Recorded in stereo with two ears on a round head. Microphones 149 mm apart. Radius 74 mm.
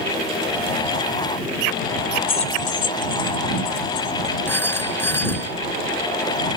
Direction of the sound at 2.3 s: 30° left (ahead or behind).